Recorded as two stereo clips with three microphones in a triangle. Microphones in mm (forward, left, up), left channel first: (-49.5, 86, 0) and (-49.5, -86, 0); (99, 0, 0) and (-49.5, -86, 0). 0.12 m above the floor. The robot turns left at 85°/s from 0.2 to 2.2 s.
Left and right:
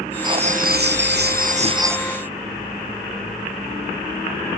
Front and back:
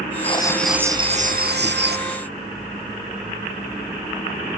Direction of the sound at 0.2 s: 25° right.